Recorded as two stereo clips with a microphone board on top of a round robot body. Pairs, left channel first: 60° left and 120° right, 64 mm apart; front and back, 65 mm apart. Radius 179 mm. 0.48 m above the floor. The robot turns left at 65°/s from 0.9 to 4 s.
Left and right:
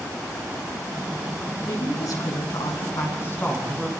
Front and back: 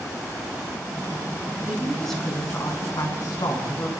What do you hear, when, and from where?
1.6 s a woman speaking: 110° left, 6.5 m; by 3.9 s 35° right, 6.5 m